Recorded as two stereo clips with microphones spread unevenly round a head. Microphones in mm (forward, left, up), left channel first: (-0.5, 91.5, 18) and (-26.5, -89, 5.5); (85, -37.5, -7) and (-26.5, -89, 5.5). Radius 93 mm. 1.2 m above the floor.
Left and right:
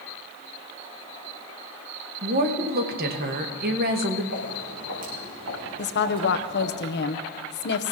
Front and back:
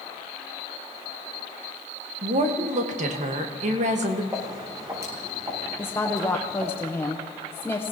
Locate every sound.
2.2 s a woman speaking: 130° right, 1.6 m
4.3 s footsteps: 95° right, 5 m; by 6.8 s 90° right, 6.5 m
5.8 s a woman speaking: 95° left, 0.9 m